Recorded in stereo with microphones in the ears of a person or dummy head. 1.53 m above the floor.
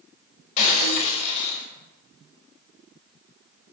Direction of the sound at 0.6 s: 40° left (ahead or behind).